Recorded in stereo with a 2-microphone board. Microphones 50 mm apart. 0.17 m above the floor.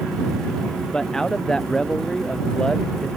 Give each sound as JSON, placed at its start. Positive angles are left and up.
{"t": 0.9, "sound": "a man speaking", "side_deg": 15}